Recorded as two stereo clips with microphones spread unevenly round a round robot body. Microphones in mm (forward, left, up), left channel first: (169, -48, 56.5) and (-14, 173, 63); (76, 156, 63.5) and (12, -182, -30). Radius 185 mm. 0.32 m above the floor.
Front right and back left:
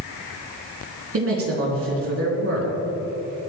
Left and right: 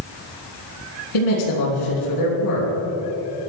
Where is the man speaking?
90° left, 3.5 m.